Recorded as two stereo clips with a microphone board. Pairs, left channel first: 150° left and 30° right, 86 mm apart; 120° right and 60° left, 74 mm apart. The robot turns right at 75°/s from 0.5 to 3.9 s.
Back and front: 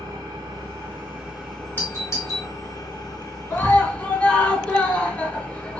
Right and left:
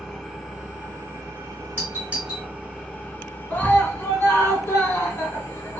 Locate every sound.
0.0 s an engine running: 25° right, 1.6 m; by 5.8 s 130° right, 1.6 m
1.8 s a doorbell: 100° left, 1.8 m; by 2.5 s 150° left, 1.8 m
3.5 s a scream: 175° right, 1.2 m; by 5.8 s 145° right, 1.2 m